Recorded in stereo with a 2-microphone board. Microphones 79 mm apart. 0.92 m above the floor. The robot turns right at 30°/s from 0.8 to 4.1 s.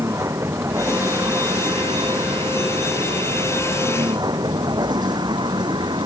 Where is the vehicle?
40° right (ahead or behind); by 6.1 s 70° right (ahead or behind).